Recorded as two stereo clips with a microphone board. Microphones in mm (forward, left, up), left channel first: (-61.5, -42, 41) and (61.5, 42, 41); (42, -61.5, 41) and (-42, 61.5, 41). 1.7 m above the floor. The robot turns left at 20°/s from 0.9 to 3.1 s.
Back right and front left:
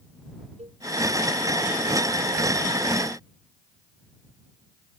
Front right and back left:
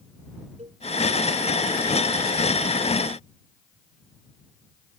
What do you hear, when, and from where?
0.6 s a cowbell: 80° left